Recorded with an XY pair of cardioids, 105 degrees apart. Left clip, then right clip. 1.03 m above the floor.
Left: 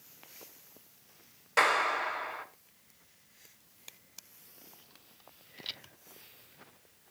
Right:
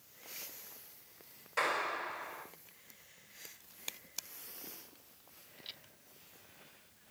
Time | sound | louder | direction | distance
1.6 | a clap | left 8 dB | 65° left | 3.5 m